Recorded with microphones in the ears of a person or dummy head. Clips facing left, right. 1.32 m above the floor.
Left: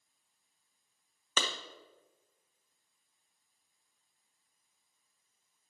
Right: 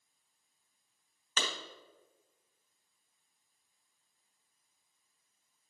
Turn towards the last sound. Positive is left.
turn(degrees=80)